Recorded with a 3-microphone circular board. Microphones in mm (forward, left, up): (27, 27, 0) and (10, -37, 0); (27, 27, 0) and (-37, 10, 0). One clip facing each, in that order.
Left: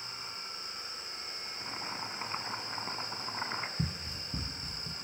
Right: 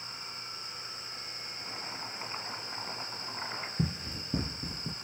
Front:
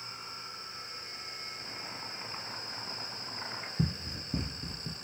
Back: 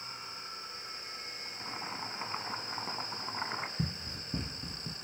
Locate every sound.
1.4 s boiling: 145° left, 3 m
3.8 s running footsteps: 50° right, 0.7 m; by 4.9 s 75° right, 1.5 m